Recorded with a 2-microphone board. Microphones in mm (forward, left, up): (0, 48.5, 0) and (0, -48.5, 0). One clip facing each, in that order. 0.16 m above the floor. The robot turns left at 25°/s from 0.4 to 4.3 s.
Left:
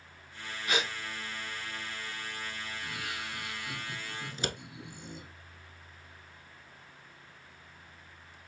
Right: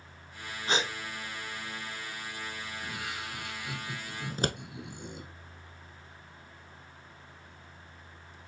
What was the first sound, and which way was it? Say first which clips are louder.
A gasp: right 2 dB; 30° right (ahead or behind).